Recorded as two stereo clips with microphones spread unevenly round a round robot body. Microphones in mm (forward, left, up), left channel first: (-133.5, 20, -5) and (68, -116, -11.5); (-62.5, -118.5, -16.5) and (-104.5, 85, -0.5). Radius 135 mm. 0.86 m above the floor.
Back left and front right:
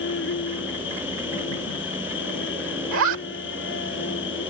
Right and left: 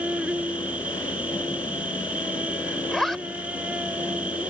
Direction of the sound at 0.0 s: 175° right.